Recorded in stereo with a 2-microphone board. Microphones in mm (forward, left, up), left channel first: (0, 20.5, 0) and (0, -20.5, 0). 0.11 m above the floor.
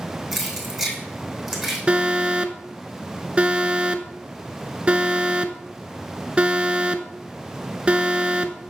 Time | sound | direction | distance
0.3 | keys jangling | centre (ahead or behind) | 3.5 m
1.9 | an alarm | 25° right (ahead or behind) | 0.8 m